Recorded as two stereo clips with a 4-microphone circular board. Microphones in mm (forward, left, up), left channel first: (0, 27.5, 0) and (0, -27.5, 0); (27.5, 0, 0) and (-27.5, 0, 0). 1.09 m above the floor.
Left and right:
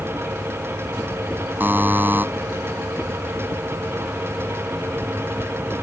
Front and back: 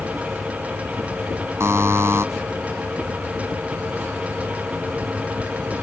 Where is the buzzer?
140° right.